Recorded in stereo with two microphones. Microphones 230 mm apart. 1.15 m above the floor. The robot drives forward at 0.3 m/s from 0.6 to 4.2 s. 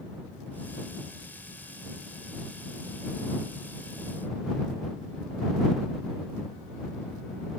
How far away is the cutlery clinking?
No cutlery clinking in this recording.